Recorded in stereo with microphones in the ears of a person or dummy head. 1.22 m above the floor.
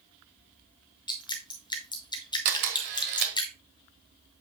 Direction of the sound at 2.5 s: 55° right (ahead or behind).